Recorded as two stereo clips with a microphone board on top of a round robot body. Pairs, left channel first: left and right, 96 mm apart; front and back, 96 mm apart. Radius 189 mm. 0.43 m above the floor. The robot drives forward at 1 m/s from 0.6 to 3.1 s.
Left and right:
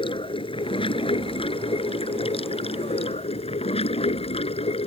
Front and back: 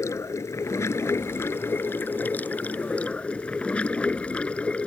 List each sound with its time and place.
0.0 s running water: 60° left; by 4.9 s 80° left